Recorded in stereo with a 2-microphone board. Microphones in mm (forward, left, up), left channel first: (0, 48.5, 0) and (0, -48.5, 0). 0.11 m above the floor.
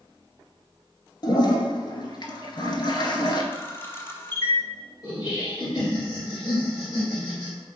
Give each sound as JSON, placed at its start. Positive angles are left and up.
{"t": 1.2, "sound": "a toilet flushing", "side_deg": 55, "distance_m": 0.5}
{"t": 3.5, "sound": "a camera shutter", "side_deg": 25, "distance_m": 0.5}
{"t": 5.0, "sound": "laughter", "side_deg": 40, "distance_m": 1.7}